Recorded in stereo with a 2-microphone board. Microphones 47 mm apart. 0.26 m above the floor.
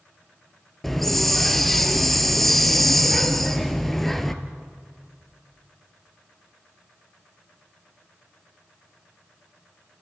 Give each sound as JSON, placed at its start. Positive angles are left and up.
{"t": 0.8, "sound": "a hiss", "side_deg": 5, "distance_m": 1.3}